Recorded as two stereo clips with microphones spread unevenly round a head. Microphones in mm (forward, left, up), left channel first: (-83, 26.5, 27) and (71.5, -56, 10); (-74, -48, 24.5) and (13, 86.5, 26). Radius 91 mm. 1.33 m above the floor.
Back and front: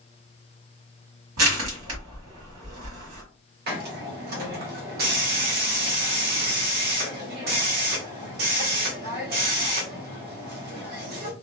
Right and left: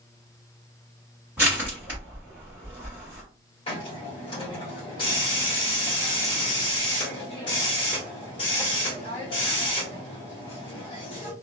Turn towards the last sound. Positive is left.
turn(degrees=-60)